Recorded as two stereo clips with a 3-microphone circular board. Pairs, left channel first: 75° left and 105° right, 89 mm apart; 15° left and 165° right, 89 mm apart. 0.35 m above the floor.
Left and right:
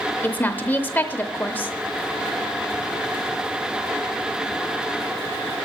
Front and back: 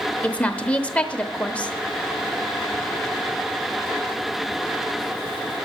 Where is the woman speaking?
60° left, 0.8 m.